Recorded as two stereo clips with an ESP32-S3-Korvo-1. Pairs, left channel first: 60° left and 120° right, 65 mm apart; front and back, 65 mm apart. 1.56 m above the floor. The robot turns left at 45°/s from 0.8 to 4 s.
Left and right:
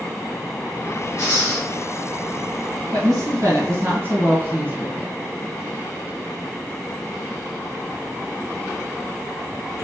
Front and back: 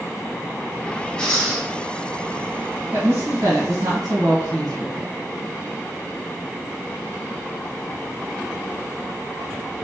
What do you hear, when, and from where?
1.2 s breathing: 70° left, 1.5 m; by 1.7 s 45° left, 1.5 m
2.9 s a woman speaking: 130° right, 1.4 m; by 5.1 s 175° right, 1.4 m